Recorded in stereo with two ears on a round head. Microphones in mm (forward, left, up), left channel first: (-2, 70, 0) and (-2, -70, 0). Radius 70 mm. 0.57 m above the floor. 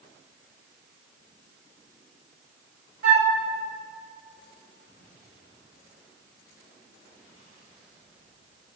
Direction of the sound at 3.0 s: 75° right (ahead or behind).